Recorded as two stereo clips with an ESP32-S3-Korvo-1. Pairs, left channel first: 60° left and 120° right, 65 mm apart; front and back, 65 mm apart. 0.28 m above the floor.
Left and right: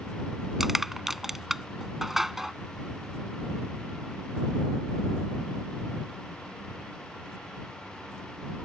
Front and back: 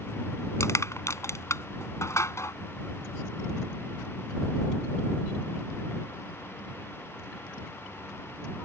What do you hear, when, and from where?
0.6 s crushing: 35° right